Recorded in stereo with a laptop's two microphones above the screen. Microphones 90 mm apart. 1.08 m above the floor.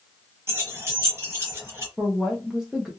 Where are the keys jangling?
30° right (ahead or behind), 1.0 m.